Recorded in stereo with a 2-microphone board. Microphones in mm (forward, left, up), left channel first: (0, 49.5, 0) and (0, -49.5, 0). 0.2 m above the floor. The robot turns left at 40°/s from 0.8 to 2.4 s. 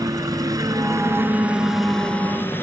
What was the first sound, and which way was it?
A helicopter, 140° right.